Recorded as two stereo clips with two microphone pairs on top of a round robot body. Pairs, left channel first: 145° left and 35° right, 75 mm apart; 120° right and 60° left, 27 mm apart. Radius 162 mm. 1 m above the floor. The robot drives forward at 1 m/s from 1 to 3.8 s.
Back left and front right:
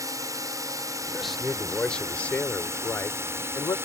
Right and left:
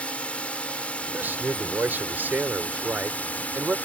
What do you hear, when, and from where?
0.0 s a drone: 75° right; by 3.9 s 90° right
1.1 s a man speaking: 55° left; by 3.8 s 95° left